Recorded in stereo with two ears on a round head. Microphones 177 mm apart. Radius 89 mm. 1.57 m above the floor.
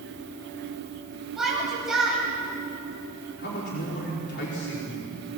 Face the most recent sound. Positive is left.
turn(degrees=55)  # may be behind; listen again after turning